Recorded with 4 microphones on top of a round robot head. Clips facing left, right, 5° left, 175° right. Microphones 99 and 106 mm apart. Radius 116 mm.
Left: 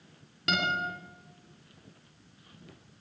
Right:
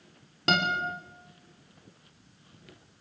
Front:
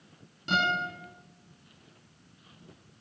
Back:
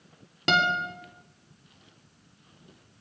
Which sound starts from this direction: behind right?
A guitar, at 0.5 s.